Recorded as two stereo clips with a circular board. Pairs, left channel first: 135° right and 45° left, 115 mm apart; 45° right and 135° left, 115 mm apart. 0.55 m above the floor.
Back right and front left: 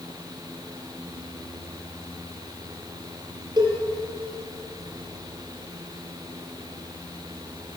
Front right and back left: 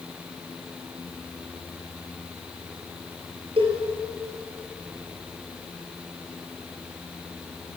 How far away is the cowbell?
About 5.5 m.